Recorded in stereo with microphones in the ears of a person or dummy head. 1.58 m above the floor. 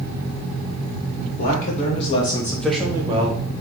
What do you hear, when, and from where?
1.4 s a man speaking: 50° left (ahead or behind), 1.3 m; by 3.5 s 40° right (ahead or behind), 0.8 m